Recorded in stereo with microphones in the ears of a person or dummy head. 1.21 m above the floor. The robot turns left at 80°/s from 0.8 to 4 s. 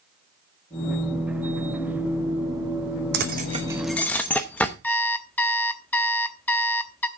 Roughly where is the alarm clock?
Centre.